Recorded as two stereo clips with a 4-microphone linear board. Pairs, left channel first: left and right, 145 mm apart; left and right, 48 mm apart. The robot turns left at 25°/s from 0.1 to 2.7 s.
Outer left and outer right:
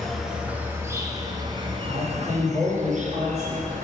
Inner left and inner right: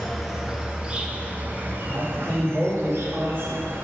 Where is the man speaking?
70° right (ahead or behind), 2.5 m; by 3.7 s 50° right (ahead or behind), 2.5 m.